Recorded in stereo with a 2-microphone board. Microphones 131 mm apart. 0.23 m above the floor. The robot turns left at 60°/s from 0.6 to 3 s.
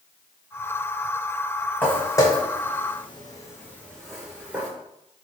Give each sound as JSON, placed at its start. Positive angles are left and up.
{"t": 1.8, "sound": "footsteps", "side_deg": 10, "distance_m": 1.1}